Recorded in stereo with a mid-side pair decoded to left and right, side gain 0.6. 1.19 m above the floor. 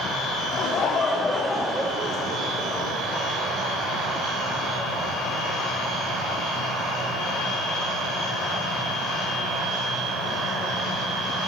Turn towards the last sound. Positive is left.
turn(degrees=-60)